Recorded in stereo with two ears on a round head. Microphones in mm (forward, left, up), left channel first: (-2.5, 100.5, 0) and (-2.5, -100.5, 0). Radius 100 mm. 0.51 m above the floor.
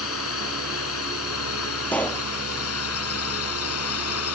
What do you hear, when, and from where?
0.0 s a drone: 70° left (ahead or behind); by 4.3 s 75° left (ahead or behind)
1.9 s a pop: 5° left (ahead or behind)